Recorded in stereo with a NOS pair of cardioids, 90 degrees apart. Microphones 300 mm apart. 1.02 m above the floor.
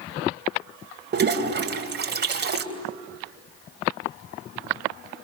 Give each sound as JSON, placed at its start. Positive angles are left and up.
{"t": 1.1, "sound": "a toilet flushing", "azimuth_deg": -35, "distance_m": 3.5}